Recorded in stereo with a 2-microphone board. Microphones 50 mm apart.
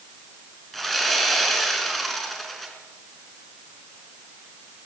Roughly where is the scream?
No scream in this recording.